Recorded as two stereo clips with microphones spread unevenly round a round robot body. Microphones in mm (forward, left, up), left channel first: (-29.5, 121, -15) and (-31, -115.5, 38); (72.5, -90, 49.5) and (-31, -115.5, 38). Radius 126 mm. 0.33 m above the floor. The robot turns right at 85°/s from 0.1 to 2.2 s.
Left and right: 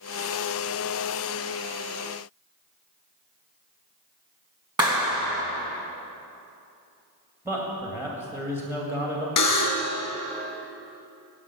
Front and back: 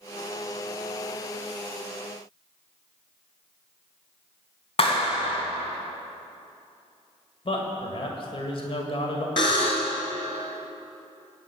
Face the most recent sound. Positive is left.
turn(degrees=80)